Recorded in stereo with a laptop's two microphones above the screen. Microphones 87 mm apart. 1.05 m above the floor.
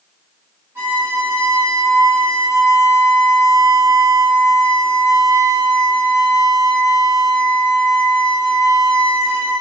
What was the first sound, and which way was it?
A violin, 30° right (ahead or behind).